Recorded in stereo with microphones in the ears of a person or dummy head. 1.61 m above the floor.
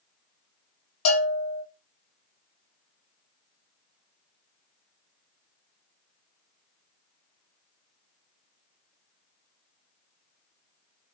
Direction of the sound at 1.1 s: 80° left.